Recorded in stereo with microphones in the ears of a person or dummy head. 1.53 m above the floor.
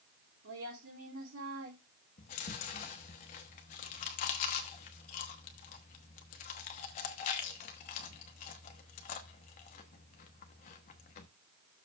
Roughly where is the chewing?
Left.